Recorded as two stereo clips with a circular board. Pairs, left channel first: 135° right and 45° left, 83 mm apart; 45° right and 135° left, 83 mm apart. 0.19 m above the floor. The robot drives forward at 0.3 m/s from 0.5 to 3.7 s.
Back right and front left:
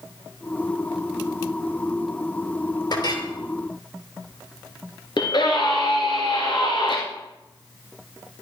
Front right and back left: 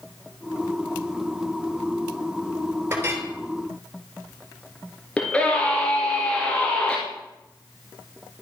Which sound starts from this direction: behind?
A clink, at 2.9 s.